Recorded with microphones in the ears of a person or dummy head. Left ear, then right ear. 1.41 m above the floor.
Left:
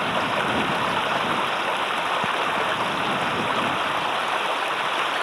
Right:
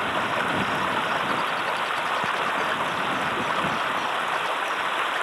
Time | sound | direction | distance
0.0 | running water | 15° right (ahead or behind) | ?